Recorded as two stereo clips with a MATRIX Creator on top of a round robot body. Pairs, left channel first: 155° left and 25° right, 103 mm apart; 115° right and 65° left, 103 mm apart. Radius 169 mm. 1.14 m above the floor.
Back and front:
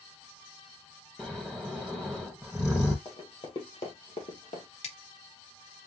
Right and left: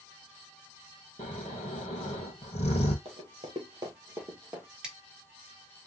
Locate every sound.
1.2 s snoring: 110° right, 0.9 m
3.0 s running footsteps: 100° left, 1.7 m; by 4.7 s 140° left, 1.9 m
4.8 s scissors: 150° left, 2.5 m